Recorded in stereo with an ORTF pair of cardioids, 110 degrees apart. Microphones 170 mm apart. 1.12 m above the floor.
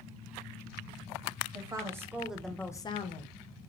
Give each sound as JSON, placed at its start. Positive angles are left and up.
{"t": 1.5, "sound": "a woman speaking", "azimuth_deg": -20, "distance_m": 1.0}